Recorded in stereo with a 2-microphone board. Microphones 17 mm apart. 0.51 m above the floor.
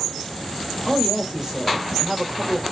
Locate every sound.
0.9 s a woman speaking: 40° right (ahead or behind), 1.4 m